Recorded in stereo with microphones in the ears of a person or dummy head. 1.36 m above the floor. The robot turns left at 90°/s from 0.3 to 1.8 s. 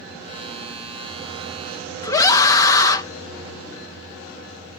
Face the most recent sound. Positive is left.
turn(degrees=15)  # may be behind; listen again after turning